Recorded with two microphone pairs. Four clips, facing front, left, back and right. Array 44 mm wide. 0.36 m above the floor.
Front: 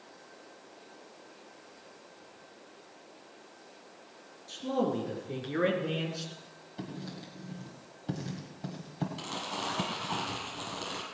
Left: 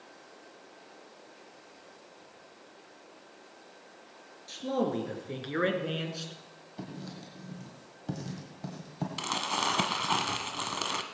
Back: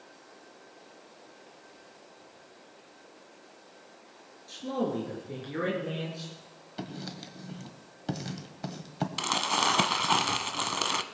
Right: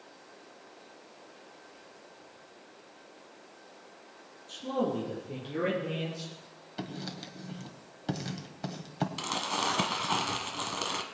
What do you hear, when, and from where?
4.5 s a man speaking: 100° left, 5 m; by 6.3 s 60° left, 3.5 m
6.8 s writing: 130° right, 1.5 m
9.2 s crumpling: 165° left, 1.0 m